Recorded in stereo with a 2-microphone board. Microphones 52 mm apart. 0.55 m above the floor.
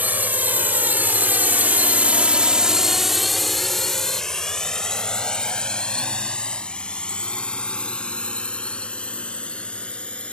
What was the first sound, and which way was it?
A drone, 35° right (ahead or behind).